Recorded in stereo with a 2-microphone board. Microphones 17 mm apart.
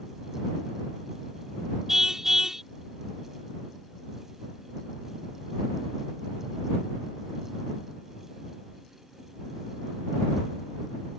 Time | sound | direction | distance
1.9 | a car horn | 25° right (ahead or behind) | ?